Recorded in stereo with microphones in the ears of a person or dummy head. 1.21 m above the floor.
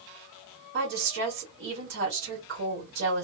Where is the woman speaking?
60° right (ahead or behind), 1.4 m.